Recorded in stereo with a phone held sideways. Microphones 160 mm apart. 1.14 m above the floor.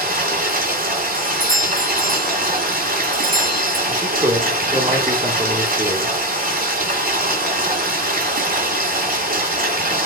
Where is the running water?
60° right (ahead or behind), 2 m.